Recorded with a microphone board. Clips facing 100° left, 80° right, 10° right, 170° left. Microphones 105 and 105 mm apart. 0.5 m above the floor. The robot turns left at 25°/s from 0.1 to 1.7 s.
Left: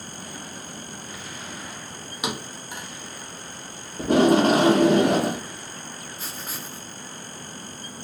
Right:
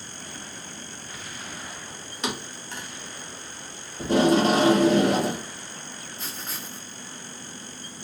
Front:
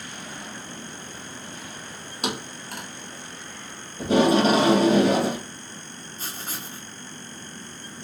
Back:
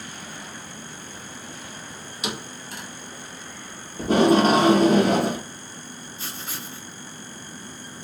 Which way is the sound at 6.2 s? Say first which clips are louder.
Even, front 1 dB; 15° left.